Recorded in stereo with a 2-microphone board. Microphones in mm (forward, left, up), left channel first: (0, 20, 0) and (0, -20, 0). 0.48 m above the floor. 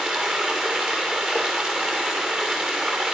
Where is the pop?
No pop in this recording.